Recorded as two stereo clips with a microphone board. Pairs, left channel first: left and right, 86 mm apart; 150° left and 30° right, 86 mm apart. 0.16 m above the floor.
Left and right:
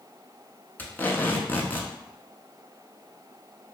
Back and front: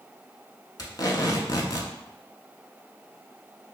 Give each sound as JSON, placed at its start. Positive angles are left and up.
{"t": 0.8, "sound": "tape being pulled", "azimuth_deg": 150, "distance_m": 0.6}